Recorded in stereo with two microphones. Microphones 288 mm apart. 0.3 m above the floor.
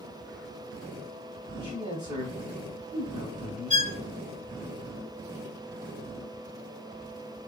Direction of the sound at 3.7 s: 25° right (ahead or behind).